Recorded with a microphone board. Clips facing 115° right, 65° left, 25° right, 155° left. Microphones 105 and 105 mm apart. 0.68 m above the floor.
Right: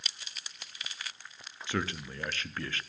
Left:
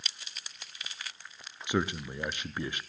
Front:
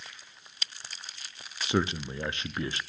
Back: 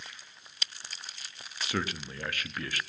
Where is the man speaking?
15° left, 0.6 m.